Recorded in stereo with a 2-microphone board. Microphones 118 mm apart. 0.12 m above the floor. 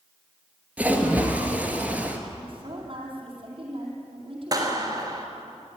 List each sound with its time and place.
0.8 s a splash: 15° right (ahead or behind), 1.6 m
2.4 s a woman speaking: 50° right (ahead or behind), 4 m
4.5 s a clap: 35° right (ahead or behind), 1.6 m